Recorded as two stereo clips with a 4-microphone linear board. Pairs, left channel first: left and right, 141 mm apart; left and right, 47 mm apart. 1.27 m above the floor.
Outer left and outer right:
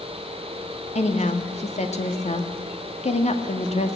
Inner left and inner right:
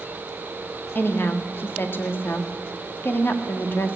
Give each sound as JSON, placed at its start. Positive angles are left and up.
{"t": 0.9, "sound": "a woman speaking", "side_deg": 55, "distance_m": 2.0}